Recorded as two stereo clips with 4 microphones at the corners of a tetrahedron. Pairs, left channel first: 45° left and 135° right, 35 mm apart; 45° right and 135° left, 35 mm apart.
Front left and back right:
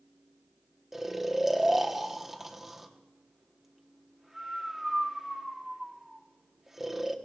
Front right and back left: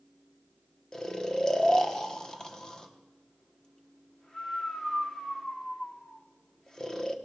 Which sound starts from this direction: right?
Snoring, at 0.9 s.